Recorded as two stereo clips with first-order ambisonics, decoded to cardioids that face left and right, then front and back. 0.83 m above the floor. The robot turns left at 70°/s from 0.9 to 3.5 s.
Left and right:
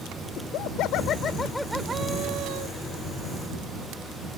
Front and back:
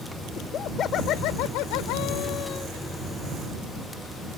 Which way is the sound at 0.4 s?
55° left.